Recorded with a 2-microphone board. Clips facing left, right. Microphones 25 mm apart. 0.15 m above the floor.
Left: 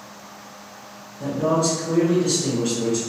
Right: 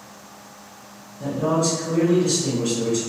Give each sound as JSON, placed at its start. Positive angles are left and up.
{"t": 1.2, "sound": "a man speaking", "side_deg": 0, "distance_m": 1.6}